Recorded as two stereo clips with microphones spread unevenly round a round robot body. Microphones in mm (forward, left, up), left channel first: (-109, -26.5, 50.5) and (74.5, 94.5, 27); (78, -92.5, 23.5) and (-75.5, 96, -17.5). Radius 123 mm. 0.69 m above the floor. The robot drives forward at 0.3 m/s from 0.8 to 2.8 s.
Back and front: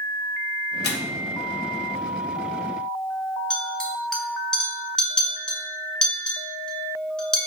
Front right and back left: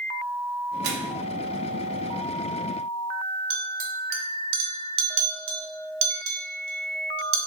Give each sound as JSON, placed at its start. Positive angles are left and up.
{"t": 0.8, "sound": "a microwave", "azimuth_deg": 170, "distance_m": 0.5}
{"t": 3.5, "sound": "a clink", "azimuth_deg": 125, "distance_m": 0.6}